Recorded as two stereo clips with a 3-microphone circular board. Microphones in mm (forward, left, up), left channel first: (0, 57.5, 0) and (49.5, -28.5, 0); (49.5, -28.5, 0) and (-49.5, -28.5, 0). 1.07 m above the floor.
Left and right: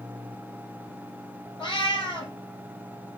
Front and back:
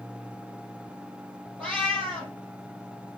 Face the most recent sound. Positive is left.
turn(degrees=80)